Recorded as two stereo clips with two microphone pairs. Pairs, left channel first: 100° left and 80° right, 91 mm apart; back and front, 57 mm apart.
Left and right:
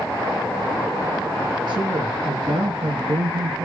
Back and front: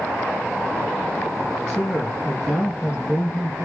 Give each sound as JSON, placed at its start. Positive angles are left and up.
{"t": 1.7, "sound": "a man speaking", "azimuth_deg": -110, "distance_m": 4.5}